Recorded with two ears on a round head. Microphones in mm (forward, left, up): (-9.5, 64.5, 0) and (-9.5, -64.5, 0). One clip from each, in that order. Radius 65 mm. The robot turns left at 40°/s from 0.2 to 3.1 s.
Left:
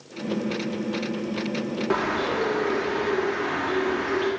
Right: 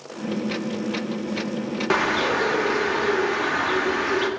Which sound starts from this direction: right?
A bird, at 1.9 s.